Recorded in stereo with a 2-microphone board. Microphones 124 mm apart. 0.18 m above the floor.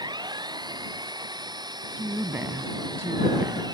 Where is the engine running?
35° right (ahead or behind).